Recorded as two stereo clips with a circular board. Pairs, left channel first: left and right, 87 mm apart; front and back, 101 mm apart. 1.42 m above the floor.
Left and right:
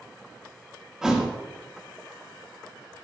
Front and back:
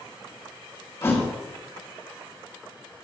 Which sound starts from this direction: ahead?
A thud, at 1.0 s.